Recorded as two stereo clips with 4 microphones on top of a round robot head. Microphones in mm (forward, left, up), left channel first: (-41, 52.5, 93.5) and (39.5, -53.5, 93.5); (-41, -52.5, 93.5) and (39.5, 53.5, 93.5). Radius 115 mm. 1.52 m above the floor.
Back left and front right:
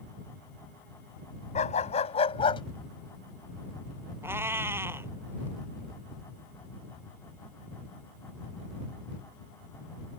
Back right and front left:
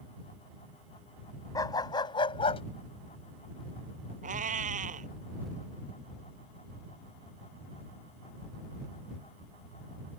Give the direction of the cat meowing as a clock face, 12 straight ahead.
11 o'clock.